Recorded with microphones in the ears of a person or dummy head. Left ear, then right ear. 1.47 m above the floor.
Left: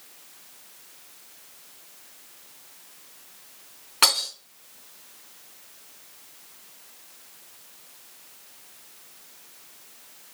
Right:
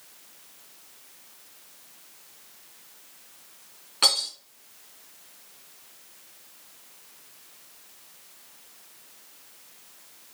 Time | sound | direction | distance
4.0 | breaking glass | 35° left (ahead or behind) | 3 m